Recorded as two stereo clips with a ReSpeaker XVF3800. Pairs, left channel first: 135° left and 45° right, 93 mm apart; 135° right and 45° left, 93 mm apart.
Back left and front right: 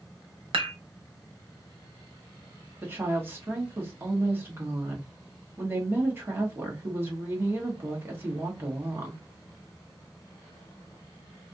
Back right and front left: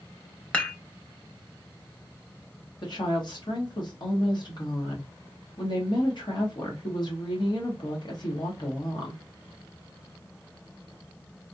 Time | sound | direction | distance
0.5 | dishes clattering | 60° right | 0.9 m
2.8 | a woman speaking | 110° right | 1.2 m